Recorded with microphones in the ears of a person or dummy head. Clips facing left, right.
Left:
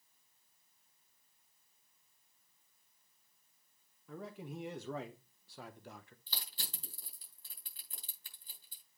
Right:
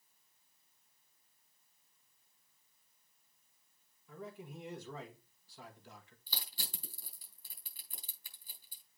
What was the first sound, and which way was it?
A man speaking, 55° left (ahead or behind).